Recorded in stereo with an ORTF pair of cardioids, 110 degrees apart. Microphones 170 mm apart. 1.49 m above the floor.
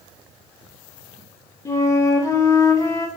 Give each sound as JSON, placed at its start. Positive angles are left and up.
{"t": 1.6, "sound": "a flute", "azimuth_deg": 20, "distance_m": 1.1}